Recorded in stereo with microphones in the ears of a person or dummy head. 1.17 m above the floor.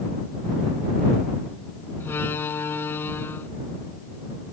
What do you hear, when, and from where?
2.0 s a door slam: 15° left (ahead or behind)